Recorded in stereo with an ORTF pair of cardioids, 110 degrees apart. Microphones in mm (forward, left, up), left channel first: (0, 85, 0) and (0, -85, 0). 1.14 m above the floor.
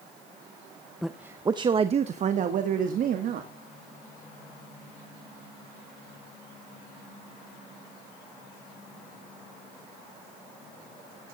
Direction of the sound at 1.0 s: Straight ahead.